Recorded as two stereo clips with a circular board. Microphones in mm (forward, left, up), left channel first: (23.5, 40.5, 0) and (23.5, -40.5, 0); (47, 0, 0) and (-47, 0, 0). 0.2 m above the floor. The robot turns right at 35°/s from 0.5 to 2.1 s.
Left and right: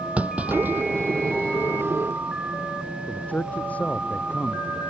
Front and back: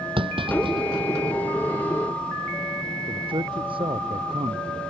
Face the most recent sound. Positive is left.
turn(degrees=160)